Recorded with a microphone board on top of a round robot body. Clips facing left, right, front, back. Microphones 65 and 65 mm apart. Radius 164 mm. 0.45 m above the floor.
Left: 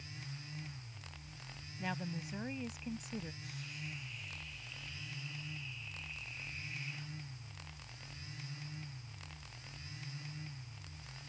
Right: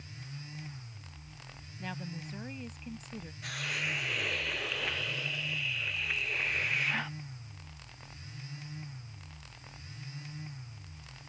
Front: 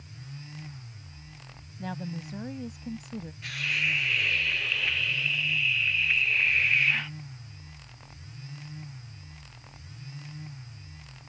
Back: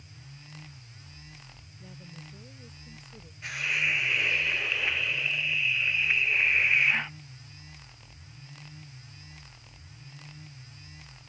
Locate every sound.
1.8 s a woman speaking: 10° left
3.4 s a hiss: 110° right